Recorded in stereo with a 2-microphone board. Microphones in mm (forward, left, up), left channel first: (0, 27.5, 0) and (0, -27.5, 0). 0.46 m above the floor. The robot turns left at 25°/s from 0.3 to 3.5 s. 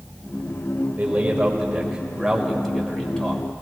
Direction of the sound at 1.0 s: 145° right.